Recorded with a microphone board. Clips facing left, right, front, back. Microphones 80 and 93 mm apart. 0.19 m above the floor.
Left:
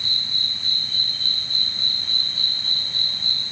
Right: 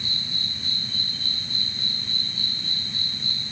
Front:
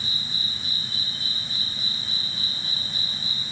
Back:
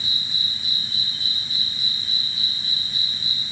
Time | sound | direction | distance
0.0 | an insect | 50° left | ?